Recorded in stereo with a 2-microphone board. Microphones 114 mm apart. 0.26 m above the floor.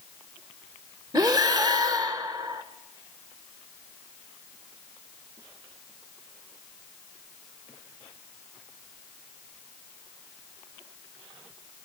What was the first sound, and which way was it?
Breathing, 35° right (ahead or behind).